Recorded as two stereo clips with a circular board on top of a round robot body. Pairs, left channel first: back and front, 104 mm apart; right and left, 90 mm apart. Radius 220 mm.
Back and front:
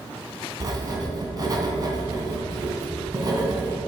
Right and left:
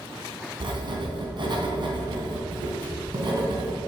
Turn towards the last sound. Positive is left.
turn(degrees=55)